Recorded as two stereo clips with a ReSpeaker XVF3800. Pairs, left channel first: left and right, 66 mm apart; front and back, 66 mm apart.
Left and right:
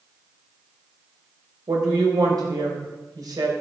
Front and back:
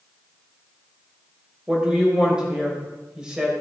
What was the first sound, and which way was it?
A woman speaking, 100° right.